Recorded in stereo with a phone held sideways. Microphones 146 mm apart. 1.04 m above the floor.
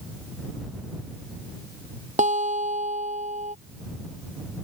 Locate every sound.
2.2 s a guitar: 55° right (ahead or behind)